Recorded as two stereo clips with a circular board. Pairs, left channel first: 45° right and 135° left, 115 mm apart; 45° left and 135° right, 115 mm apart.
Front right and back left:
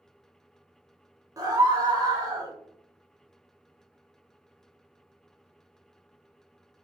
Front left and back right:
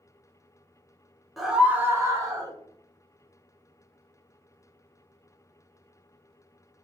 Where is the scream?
135° left, 1.1 m; by 2.5 s straight behind, 1.6 m.